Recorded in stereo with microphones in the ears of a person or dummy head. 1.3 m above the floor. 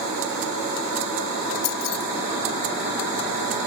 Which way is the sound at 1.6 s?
75° left (ahead or behind).